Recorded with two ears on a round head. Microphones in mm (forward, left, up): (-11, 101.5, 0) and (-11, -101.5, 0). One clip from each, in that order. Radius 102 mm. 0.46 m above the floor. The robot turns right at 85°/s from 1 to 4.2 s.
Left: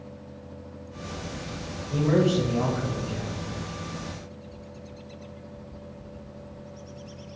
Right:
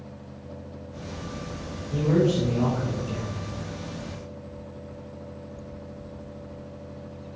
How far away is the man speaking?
About 2.5 m.